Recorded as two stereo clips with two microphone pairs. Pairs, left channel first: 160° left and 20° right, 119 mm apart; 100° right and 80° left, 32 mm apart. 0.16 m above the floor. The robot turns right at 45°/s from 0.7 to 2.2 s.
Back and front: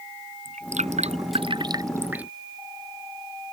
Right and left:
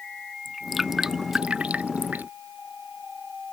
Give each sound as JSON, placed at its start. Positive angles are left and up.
{"t": 0.5, "sound": "dripping", "azimuth_deg": -10}